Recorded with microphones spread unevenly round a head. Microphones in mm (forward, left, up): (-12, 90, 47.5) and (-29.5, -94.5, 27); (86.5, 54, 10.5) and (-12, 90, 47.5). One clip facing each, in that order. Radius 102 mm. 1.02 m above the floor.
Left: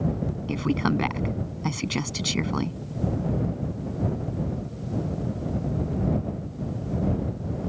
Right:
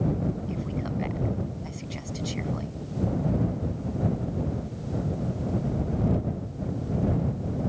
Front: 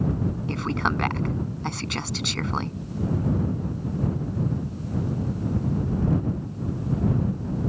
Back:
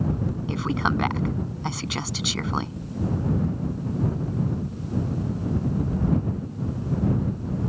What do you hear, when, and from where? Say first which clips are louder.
0.5 s a woman speaking: left 7 dB, back 2 dB; 75° left